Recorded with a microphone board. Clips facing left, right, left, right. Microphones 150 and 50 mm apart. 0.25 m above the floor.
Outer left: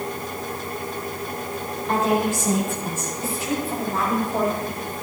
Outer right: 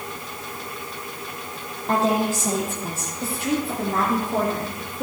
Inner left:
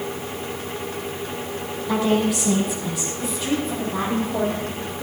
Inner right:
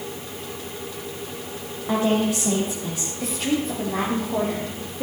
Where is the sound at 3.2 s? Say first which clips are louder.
Outer right 3 dB, inner right 1 dB; 65° right (ahead or behind), 6.5 m.